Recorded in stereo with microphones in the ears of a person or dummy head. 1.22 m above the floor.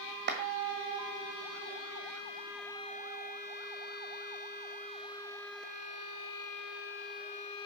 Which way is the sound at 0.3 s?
45° right (ahead or behind).